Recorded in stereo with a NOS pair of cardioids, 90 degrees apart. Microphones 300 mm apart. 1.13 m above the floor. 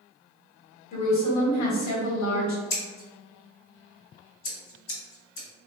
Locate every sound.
0.9 s a woman speaking: 65° left, 1.1 m
2.7 s scissors: 55° left, 1.3 m